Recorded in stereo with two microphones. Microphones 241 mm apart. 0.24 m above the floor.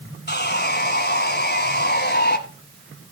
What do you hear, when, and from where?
0.3 s sawing: 45° left (ahead or behind), 1.0 m